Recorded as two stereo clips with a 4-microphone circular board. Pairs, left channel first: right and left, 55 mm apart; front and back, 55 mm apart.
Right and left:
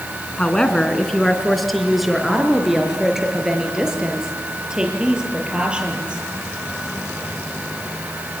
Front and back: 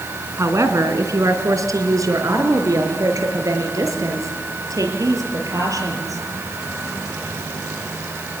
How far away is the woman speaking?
About 3 m.